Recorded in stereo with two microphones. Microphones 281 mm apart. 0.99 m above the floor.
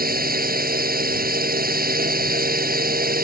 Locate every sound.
0.0 s a drone: 30° right (ahead or behind)